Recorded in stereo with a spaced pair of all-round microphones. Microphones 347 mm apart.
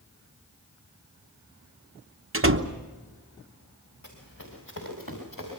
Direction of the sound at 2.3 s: 40° right (ahead or behind).